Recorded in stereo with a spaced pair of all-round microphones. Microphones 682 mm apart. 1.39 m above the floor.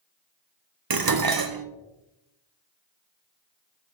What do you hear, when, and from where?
0.9 s dishes clattering: 35° right (ahead or behind), 0.5 m